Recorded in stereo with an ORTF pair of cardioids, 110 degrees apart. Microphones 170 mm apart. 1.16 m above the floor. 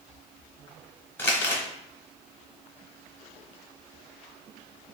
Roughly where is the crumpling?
Ahead.